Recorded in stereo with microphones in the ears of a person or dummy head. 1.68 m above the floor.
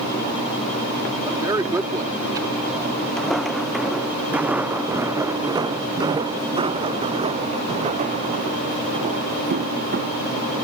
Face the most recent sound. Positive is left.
turn(degrees=-40)  # may be behind; listen again after turning